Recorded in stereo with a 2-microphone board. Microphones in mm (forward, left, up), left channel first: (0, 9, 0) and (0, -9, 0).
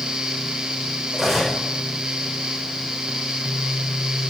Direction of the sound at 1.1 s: 5° left (ahead or behind).